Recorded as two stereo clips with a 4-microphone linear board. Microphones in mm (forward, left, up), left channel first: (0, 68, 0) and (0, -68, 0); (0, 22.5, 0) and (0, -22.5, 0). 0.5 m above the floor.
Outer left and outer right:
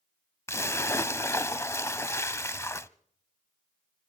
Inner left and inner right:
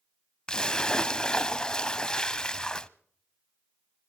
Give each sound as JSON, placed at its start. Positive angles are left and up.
{"t": 0.5, "sound": "a splash", "side_deg": 20, "distance_m": 0.5}